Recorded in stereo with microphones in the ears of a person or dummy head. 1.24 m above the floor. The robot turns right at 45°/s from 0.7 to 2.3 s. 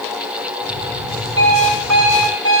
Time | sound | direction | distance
1.4 | an alarm clock | 120° right | 4.5 m